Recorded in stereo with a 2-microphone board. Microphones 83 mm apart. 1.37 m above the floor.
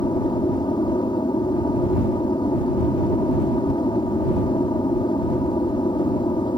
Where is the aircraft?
65° left (ahead or behind).